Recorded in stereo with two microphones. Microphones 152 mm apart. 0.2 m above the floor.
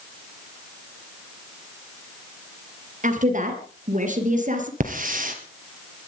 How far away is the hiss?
About 2.5 m.